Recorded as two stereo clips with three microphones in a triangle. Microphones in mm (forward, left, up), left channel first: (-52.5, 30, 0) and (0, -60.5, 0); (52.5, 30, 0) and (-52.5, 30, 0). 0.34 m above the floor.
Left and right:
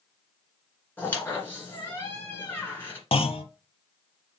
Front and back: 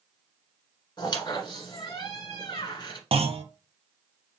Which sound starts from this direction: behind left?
A clunk, at 3.1 s.